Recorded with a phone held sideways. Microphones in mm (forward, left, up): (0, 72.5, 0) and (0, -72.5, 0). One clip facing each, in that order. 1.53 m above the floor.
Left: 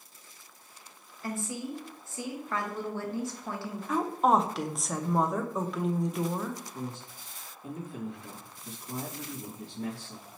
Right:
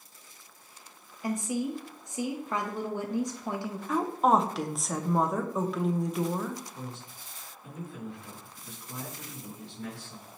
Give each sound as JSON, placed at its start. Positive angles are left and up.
{"t": 1.2, "sound": "a woman speaking", "side_deg": -15, "distance_m": 0.6}
{"t": 3.9, "sound": "a woman speaking", "side_deg": 0, "distance_m": 0.5}
{"t": 6.7, "sound": "a man speaking", "side_deg": 55, "distance_m": 2.5}